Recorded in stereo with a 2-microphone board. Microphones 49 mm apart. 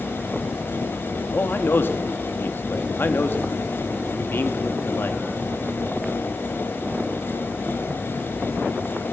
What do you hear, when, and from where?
1.3 s a man speaking: 50° left (ahead or behind), 1.7 m